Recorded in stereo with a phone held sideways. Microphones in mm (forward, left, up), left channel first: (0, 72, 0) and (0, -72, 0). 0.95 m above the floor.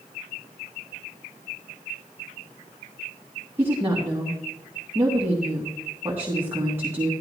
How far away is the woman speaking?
About 2 m.